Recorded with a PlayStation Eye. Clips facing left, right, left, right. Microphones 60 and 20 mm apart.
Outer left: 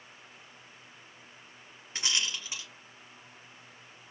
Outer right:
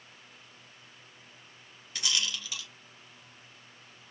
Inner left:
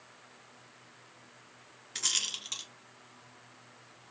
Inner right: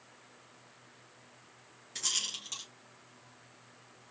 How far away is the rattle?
About 1.4 m.